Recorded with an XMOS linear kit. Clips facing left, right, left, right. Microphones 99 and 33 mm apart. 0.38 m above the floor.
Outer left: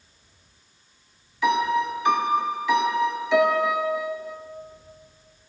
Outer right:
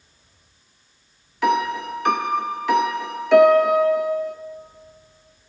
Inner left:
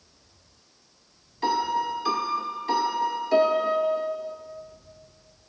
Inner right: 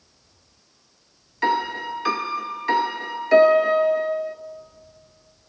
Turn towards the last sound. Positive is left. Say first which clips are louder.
# outer right 1 dB, inner right 2 dB
turn(degrees=-60)  # may be behind; listen again after turning